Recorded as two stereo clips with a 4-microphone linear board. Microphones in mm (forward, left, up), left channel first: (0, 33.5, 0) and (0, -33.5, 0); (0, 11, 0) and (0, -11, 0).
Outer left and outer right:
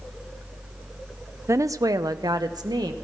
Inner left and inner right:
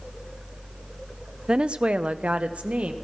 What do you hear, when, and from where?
1.5 s a woman speaking: 45° right (ahead or behind), 0.5 m; by 2.9 s 80° right, 1.2 m